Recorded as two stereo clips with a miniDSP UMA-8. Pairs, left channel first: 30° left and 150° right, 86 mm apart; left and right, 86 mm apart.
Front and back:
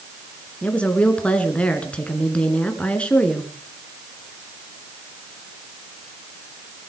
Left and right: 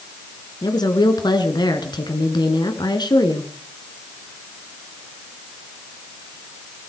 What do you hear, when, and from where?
0.6 s a woman speaking: 105° left, 2.5 m